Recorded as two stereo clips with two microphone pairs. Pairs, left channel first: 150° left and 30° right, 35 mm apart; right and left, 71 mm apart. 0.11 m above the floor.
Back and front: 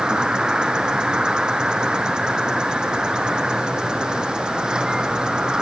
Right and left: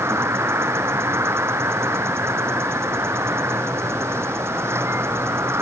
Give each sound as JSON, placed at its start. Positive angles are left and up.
{"t": 0.0, "sound": "an insect", "azimuth_deg": 40}